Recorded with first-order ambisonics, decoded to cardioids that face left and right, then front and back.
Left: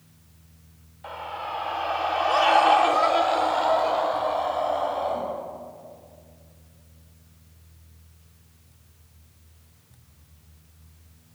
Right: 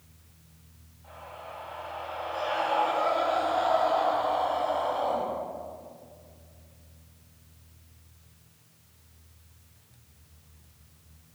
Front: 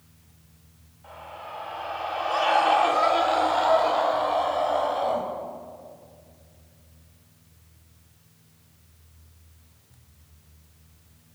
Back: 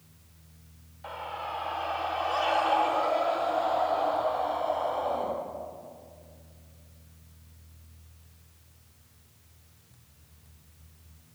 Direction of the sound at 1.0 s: 120° left.